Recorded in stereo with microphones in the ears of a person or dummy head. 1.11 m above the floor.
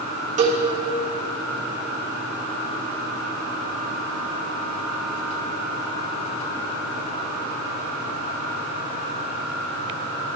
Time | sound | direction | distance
0.4 | a cowbell | 35° right (ahead or behind) | 1.3 m